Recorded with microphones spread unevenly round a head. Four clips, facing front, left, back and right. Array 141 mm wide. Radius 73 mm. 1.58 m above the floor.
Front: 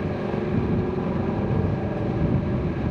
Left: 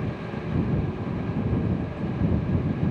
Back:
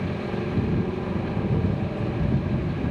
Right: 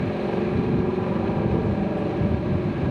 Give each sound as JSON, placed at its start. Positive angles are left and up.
{"t": 0.0, "sound": "a helicopter", "azimuth_deg": -75}